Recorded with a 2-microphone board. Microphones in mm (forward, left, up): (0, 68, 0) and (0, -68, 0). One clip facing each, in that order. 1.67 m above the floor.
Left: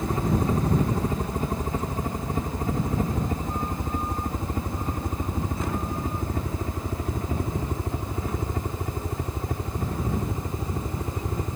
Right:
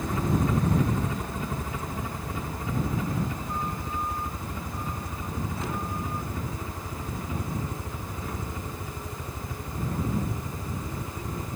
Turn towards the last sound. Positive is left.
turn(degrees=55)  # may be behind; listen again after turning